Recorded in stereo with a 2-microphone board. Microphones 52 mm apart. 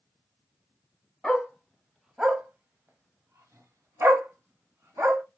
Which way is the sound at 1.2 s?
10° left (ahead or behind).